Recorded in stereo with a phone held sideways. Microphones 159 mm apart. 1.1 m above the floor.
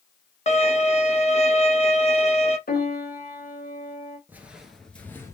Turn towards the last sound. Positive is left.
turn(degrees=20)  # may be behind; listen again after turning